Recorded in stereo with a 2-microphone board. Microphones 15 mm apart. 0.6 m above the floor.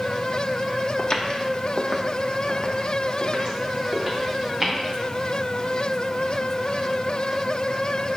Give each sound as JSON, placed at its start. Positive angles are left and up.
{"t": 1.0, "sound": "footsteps", "side_deg": 60, "distance_m": 1.4}